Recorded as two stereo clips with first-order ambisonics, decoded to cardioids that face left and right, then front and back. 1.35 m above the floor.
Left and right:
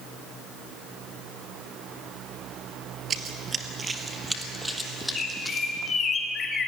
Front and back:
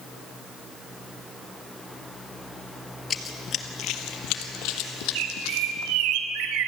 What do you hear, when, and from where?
3.1 s running footsteps: 50° right, 1.6 m; by 6.0 s 5° left, 4 m
5.2 s a bird: 160° left, 2.5 m